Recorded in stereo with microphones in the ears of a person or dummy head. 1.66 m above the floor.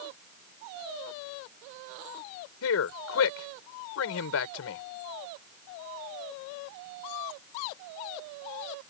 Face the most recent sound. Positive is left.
turn(degrees=85)